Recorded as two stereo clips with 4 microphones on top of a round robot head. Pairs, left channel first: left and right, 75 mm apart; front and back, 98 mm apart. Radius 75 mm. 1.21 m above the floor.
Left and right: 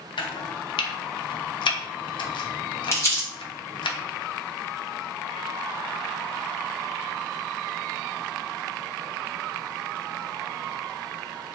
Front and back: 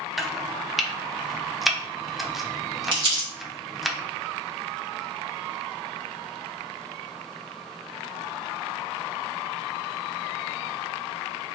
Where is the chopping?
90° left, 0.5 m.